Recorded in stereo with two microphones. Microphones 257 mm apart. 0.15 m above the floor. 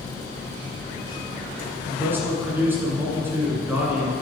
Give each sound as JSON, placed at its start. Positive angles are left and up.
{"t": 1.9, "sound": "a man speaking", "side_deg": -10, "distance_m": 1.5}